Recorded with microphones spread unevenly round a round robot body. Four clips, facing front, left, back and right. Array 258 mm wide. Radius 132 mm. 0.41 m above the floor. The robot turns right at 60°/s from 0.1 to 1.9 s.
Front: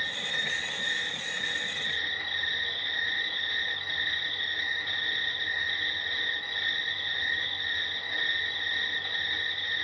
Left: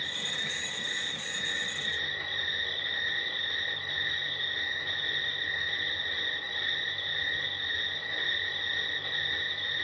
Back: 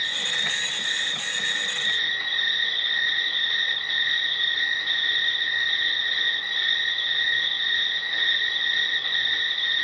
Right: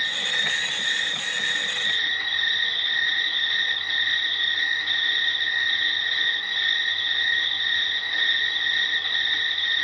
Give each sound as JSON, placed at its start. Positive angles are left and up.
{"t": 0.0, "sound": "an insect", "azimuth_deg": -30, "distance_m": 1.6}